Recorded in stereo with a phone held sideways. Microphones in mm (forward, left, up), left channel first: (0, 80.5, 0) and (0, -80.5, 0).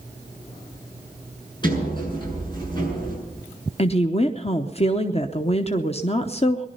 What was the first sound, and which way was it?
A sliding door, 30° left (ahead or behind).